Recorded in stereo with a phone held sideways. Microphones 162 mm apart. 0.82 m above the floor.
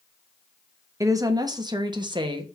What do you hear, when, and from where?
1.0 s a woman speaking: 20° right (ahead or behind), 0.9 m; by 2.5 s 25° right (ahead or behind), 1.3 m